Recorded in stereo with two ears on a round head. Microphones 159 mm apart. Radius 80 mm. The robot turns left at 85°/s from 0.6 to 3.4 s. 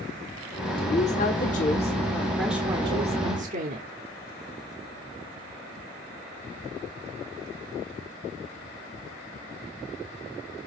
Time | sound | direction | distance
0.8 | a woman speaking | 140° left | 1.1 m